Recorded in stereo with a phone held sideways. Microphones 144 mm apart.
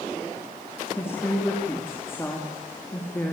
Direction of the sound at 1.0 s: 15° left (ahead or behind).